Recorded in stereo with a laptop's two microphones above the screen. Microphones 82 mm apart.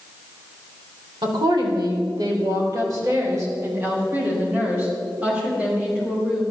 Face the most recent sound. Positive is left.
turn(degrees=-10)  # may be behind; listen again after turning